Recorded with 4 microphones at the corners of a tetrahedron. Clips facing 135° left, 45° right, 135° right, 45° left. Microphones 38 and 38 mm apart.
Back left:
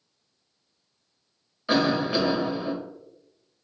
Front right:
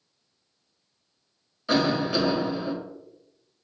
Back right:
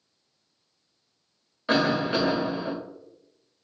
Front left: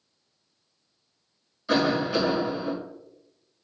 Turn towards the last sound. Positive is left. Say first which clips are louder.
# back left 1 dB, even
turn(degrees=-150)